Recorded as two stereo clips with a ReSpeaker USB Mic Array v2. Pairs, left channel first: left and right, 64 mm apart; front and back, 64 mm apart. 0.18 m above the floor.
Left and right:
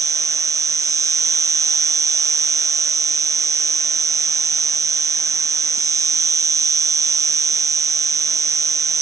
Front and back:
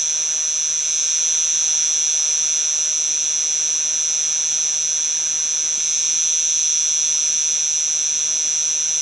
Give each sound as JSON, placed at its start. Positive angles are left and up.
{"t": 0.0, "sound": "an insect", "azimuth_deg": -95}